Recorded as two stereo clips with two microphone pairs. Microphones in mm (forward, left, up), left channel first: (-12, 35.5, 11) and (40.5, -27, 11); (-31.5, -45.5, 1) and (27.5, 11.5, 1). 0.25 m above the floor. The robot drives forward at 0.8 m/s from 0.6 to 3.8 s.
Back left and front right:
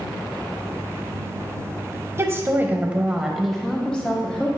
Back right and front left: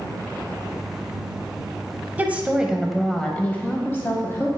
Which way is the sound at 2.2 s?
15° right.